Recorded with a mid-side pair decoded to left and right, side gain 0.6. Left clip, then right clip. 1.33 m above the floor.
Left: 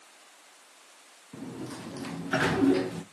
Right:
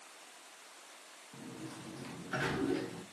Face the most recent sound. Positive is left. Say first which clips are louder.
# left 8 dB
turn(degrees=50)